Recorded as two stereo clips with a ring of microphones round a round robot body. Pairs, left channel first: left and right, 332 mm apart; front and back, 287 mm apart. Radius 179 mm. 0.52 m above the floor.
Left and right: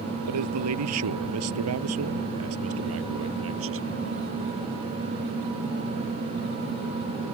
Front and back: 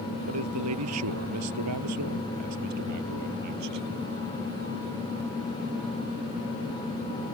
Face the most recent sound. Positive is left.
turn(degrees=-145)